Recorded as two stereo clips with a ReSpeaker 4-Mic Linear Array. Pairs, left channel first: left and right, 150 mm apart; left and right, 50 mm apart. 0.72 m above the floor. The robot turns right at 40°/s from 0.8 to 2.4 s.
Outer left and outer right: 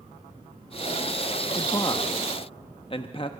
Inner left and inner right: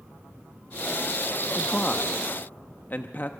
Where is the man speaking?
25° left (ahead or behind), 0.6 m; by 3.3 s 35° left (ahead or behind), 0.6 m.